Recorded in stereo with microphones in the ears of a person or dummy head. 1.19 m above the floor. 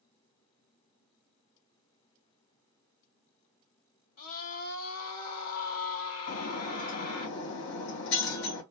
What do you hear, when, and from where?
4.2 s a scream: 75° left (ahead or behind), 2.5 m
6.3 s breaking glass: 80° left, 3 m